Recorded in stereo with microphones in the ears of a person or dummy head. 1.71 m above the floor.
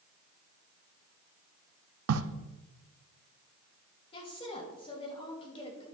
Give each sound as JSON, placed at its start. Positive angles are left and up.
{"t": 2.1, "sound": "a crack", "side_deg": -85, "distance_m": 0.7}
{"t": 4.1, "sound": "a woman speaking", "side_deg": 35, "distance_m": 3.0}